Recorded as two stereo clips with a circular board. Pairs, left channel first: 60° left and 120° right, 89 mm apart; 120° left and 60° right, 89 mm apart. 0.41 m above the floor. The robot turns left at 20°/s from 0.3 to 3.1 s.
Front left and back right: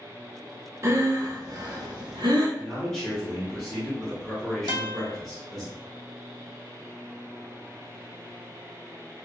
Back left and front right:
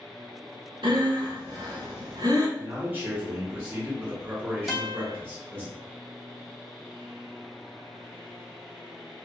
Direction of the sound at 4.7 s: 150° right.